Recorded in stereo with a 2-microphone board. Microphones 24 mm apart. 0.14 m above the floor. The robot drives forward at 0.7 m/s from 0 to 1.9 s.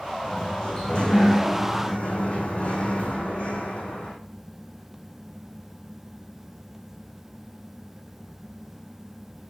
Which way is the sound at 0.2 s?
45° left (ahead or behind).